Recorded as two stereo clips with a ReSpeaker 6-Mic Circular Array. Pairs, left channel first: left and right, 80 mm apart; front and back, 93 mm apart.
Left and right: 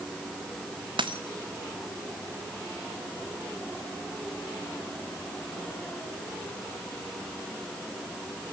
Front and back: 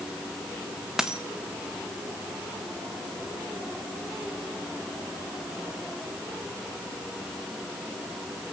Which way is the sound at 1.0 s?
95° right.